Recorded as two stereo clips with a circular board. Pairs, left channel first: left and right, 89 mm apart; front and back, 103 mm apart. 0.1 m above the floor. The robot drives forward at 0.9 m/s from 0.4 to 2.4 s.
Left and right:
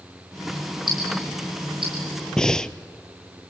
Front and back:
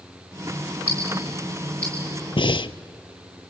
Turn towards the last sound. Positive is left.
turn(degrees=10)